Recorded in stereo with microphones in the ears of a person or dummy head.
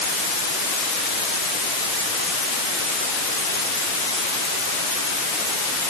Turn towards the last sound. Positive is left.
No sound to turn to.